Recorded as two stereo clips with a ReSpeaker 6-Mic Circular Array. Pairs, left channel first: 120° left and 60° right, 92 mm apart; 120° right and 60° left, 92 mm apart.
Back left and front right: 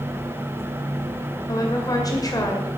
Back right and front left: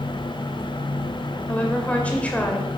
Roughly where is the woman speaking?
Behind.